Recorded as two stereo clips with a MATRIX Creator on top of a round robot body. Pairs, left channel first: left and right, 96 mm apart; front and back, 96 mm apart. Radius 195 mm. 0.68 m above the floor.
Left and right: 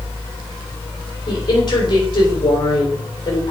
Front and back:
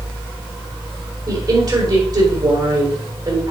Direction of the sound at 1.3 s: 135° left.